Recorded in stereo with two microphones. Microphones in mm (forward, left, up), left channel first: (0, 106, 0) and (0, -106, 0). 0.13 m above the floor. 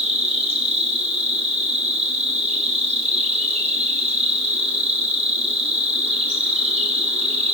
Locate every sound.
0.0 s an insect: 30° right (ahead or behind), 2.5 m